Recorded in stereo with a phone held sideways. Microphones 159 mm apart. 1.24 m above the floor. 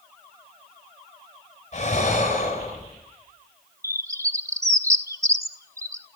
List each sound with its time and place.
1.7 s breathing: 45° left (ahead or behind), 10 m
3.8 s a bird: 20° right (ahead or behind), 1.4 m